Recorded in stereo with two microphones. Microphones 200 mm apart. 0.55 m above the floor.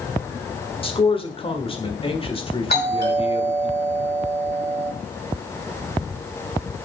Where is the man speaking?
25° left (ahead or behind), 1.4 m.